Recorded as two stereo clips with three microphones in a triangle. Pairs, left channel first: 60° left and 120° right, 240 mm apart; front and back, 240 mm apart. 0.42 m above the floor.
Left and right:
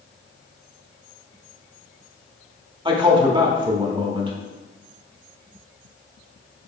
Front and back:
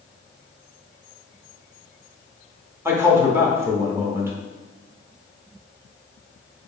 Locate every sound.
2.9 s a man speaking: 120° right, 0.8 m